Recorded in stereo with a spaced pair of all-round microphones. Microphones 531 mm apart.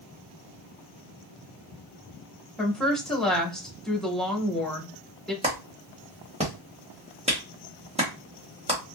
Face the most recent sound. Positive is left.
turn(degrees=-10)  # may be behind; listen again after turning